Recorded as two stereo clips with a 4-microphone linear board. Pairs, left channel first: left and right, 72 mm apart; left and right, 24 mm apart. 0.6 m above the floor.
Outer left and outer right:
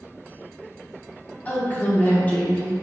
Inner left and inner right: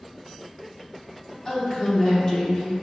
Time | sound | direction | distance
1.4 | a woman speaking | 25° left (ahead or behind) | 0.6 m